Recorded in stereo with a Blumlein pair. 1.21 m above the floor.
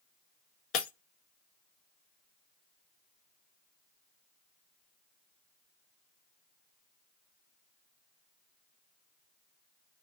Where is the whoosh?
No whoosh in this recording.